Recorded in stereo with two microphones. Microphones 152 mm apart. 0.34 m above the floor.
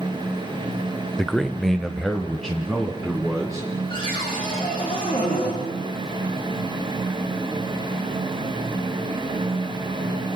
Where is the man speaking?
5° left (ahead or behind), 0.8 m; by 3.7 s centre (ahead or behind), 3.5 m.